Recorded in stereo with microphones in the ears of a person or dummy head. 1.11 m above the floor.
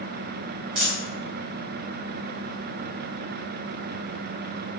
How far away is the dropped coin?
About 1.0 m.